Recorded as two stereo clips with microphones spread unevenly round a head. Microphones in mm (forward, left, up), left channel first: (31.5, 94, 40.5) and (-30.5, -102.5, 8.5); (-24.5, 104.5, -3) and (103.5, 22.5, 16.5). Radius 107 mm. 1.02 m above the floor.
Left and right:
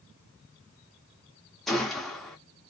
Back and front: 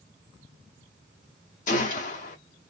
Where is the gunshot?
150° left, 0.6 m.